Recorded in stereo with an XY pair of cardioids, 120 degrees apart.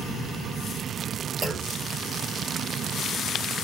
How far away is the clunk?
About 0.8 m.